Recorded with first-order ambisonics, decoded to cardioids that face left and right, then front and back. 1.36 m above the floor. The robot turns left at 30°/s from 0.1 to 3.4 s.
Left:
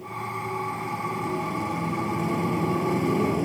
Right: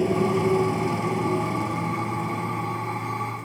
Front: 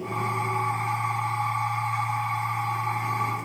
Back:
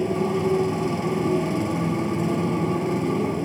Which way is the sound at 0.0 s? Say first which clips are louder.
Right 9 dB, back 4 dB; 125° right.